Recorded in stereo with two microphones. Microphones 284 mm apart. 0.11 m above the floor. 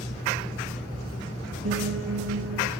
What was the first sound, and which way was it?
A piano, 65° right (ahead or behind).